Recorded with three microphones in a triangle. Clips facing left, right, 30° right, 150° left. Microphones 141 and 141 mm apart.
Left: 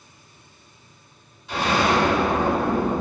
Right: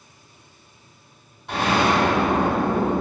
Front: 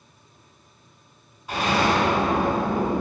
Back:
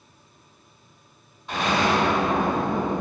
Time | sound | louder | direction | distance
1.5 | an explosion | right 1 dB, front 1 dB | 115° right | 2 m